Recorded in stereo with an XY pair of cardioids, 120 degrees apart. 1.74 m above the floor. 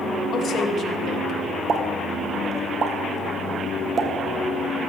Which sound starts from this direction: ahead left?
A woman speaking, at 0.3 s.